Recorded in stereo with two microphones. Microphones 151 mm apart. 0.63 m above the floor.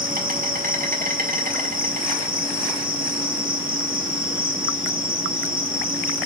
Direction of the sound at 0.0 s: 60° right (ahead or behind).